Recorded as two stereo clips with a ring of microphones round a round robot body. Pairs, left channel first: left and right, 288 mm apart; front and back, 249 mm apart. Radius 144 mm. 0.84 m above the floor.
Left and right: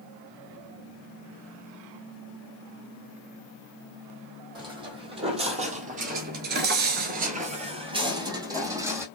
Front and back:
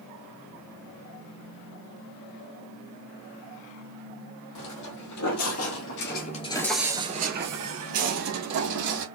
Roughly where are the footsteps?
Ahead.